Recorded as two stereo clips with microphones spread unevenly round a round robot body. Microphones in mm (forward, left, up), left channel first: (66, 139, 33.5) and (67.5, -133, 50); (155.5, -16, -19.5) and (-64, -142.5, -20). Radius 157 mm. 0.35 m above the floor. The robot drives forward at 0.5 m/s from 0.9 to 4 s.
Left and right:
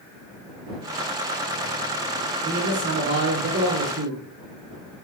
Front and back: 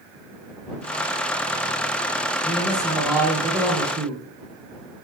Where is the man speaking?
50° right, 1.1 m; by 4.2 s 120° right, 1.0 m.